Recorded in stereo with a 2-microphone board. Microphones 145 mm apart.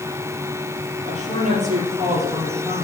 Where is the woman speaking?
50° right (ahead or behind), 4.5 m.